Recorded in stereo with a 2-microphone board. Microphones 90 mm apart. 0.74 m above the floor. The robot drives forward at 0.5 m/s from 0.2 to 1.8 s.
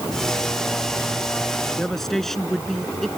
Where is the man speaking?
5° left (ahead or behind).